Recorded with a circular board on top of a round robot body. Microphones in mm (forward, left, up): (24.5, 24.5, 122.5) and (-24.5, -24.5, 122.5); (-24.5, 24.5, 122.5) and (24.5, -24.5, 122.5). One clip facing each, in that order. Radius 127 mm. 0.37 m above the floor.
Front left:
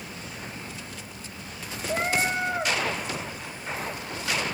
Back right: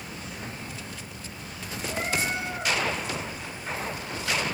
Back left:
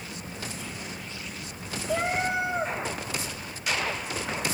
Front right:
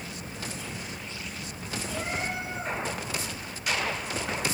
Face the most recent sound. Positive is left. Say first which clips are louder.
# front left 4 dB, back left 7 dB
turn(degrees=105)